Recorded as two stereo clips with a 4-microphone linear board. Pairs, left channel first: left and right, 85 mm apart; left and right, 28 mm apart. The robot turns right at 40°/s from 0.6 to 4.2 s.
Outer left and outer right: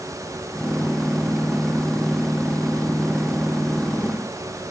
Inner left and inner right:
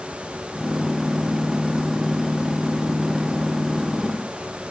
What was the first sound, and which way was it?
Only background noise.